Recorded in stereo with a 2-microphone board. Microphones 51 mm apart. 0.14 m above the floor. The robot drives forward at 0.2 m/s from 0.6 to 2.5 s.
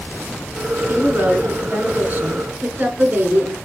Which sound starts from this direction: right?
A woman speaking, at 0.9 s.